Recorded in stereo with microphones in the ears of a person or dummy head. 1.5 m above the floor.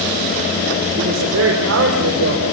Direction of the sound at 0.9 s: 80° right.